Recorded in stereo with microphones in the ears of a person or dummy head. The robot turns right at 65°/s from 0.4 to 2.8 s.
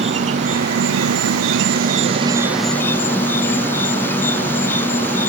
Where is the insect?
150° right; by 5.3 s 10° left.